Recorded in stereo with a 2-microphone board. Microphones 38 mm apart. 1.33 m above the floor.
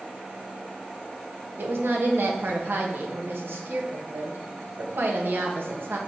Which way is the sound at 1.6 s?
75° right (ahead or behind).